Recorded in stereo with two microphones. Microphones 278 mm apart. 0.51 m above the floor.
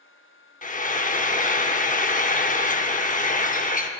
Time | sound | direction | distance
0.6 | frying | 30° left (ahead or behind) | 0.6 m